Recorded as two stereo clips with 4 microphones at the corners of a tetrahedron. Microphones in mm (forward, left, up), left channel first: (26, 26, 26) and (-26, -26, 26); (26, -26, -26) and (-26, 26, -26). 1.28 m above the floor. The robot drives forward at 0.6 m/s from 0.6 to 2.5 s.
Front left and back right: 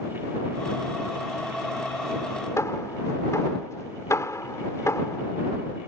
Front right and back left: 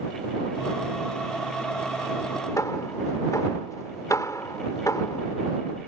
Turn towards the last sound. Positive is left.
turn(degrees=-5)